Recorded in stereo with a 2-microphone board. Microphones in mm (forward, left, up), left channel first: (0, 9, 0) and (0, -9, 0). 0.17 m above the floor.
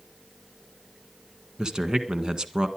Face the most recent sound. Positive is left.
turn(degrees=-45)  # may be behind; listen again after turning